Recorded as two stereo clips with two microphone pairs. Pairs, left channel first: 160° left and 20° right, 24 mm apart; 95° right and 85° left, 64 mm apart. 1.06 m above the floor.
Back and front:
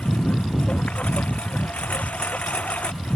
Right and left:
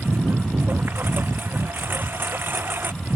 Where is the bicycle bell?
I don't hear a bicycle bell.